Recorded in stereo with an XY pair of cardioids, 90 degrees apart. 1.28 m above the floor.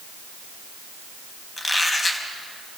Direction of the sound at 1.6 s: 30° left.